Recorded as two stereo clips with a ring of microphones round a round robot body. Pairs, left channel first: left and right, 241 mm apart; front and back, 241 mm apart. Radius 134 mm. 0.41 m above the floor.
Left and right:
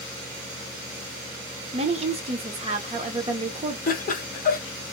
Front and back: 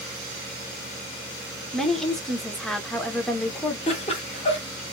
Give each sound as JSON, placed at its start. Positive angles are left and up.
{"t": 1.7, "sound": "a woman speaking", "azimuth_deg": -85, "distance_m": 0.8}
{"t": 3.9, "sound": "laughter", "azimuth_deg": 55, "distance_m": 1.2}